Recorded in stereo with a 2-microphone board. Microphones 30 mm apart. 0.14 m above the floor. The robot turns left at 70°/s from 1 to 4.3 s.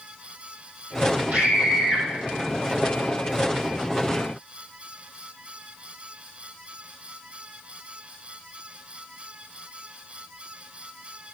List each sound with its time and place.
1.3 s a scream: 125° right, 5 m; by 2.0 s 175° right, 5 m